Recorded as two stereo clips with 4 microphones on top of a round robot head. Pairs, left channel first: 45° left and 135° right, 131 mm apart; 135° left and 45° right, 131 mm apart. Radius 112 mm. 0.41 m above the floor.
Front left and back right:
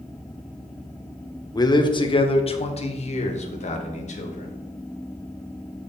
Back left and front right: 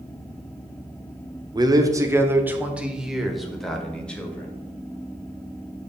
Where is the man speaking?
Straight ahead, 1.3 m; by 4.5 s 55° left, 2 m.